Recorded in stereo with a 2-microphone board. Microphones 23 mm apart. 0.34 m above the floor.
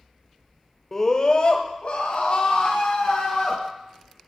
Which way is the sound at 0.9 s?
15° left (ahead or behind).